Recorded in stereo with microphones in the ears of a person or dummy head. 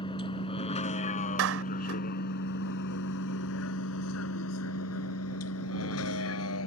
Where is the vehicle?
25° left (ahead or behind); by 6.7 s 75° left (ahead or behind).